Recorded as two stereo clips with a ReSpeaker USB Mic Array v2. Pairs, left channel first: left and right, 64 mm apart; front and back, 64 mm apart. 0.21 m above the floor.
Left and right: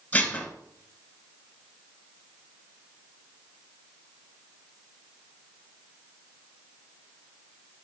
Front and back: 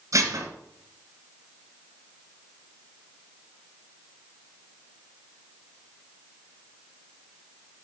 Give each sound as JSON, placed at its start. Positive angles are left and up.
{"t": 0.1, "sound": "dishes clattering", "azimuth_deg": 155, "distance_m": 2.0}